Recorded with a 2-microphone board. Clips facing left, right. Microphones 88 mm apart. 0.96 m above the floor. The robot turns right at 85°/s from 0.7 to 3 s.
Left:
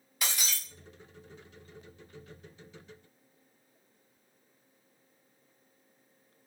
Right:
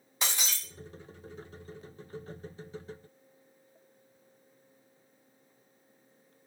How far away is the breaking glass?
About 1.2 m.